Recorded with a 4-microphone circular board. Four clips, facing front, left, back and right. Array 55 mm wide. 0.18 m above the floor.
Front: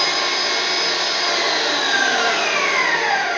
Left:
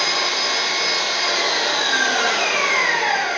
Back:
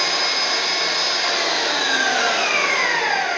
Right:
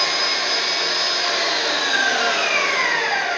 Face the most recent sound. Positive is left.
turn(degrees=30)